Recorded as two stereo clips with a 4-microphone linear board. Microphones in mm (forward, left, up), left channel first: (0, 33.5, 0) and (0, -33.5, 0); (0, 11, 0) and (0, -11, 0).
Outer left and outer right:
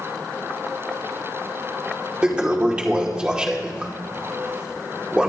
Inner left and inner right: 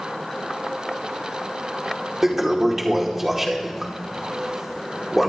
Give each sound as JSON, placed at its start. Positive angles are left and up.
{"t": 2.2, "sound": "a toilet flushing", "side_deg": -15, "distance_m": 2.5}